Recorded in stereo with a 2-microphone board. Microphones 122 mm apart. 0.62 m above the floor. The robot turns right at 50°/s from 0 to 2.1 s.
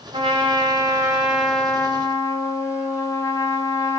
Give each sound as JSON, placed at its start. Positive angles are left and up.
{"t": 0.1, "sound": "a trumpet", "azimuth_deg": -70, "distance_m": 1.2}